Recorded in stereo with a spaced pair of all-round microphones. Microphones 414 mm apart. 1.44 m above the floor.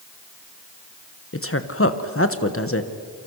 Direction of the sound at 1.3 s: 30° left (ahead or behind).